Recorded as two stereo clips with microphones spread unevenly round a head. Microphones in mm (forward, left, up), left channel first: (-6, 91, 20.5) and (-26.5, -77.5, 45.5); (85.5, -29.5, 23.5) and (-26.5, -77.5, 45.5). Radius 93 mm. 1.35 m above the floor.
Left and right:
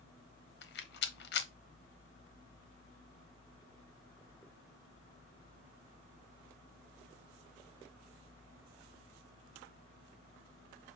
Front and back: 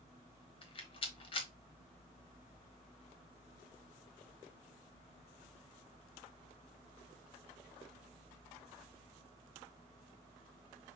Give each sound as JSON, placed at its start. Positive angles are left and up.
{"t": 0.6, "sound": "a rattle", "azimuth_deg": 70, "distance_m": 0.8}